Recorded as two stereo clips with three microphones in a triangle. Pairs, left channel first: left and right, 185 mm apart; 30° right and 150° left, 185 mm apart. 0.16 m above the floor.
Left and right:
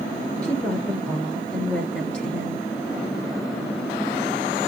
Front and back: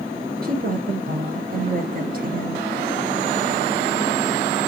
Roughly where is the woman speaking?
Behind.